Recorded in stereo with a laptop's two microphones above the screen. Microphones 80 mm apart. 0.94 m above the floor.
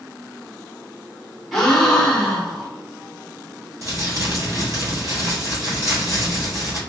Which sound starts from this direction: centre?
A gasp, at 1.5 s.